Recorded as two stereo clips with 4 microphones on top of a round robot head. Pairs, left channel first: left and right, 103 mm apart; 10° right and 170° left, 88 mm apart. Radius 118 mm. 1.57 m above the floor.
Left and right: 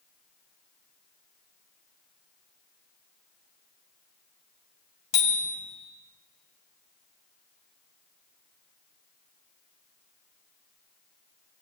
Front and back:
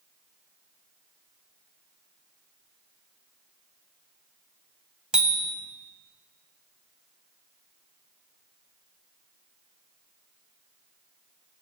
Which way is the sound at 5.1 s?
90° left.